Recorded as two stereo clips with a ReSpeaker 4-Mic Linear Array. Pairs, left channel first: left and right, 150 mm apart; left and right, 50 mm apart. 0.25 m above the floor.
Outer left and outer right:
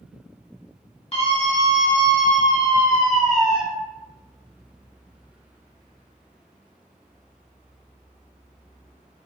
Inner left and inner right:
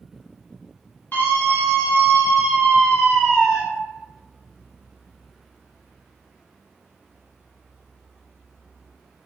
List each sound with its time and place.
1.1 s a scream: 45° left (ahead or behind), 1.6 m; by 3.6 s 10° right (ahead or behind), 1.0 m